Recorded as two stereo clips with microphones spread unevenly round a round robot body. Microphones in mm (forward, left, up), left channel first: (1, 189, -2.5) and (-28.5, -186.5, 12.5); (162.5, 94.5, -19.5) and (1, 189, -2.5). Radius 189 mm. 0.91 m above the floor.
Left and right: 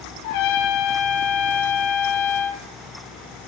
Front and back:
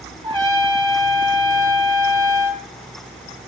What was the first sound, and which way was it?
A trumpet, 85° left.